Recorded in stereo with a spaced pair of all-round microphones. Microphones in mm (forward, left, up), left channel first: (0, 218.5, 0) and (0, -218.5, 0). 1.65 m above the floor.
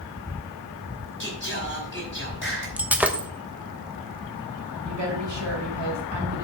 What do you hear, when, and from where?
1.2 s singing: 25° left (ahead or behind), 4.5 m
2.8 s breaking glass: 5° right (ahead or behind), 0.9 m
4.8 s a woman speaking: 85° right, 3 m